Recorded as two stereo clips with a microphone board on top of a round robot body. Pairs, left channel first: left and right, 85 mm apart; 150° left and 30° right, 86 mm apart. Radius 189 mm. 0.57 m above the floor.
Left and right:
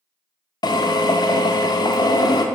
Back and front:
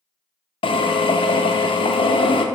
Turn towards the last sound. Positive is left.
turn(degrees=130)